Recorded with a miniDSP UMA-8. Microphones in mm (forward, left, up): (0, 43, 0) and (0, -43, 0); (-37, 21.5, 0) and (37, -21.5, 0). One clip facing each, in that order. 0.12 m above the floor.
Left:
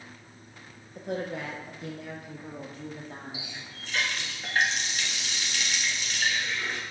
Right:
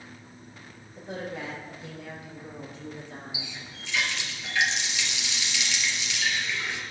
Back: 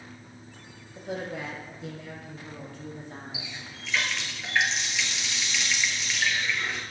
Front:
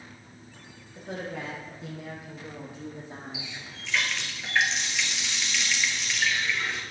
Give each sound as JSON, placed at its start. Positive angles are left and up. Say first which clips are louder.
{"t": 0.9, "sound": "a woman speaking", "louder": "left 3 dB, back 2 dB", "azimuth_deg": 70, "distance_m": 3.5}
{"t": 3.3, "sound": "a running tap", "louder": "right 1 dB, even", "azimuth_deg": 60, "distance_m": 1.5}